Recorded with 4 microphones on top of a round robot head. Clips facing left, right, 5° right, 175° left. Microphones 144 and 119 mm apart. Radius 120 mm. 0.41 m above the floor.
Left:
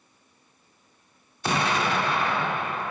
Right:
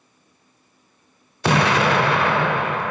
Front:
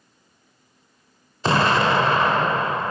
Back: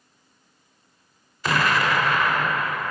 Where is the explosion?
70° right, 0.6 m.